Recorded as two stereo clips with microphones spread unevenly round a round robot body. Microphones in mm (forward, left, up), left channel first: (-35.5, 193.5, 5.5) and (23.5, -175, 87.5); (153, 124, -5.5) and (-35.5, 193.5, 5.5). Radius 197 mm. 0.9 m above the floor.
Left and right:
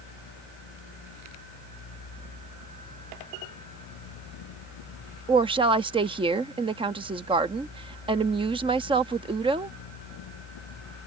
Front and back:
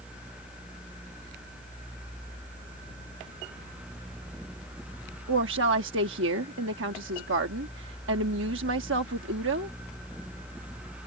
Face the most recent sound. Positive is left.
turn(degrees=-165)